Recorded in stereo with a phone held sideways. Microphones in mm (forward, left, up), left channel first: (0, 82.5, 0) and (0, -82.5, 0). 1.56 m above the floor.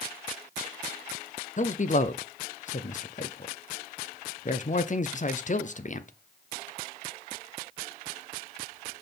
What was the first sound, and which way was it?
A man speaking, 50° left (ahead or behind).